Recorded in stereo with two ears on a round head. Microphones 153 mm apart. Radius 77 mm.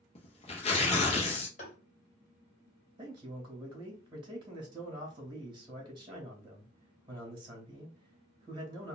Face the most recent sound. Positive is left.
turn(degrees=-30)  # may be behind; listen again after turning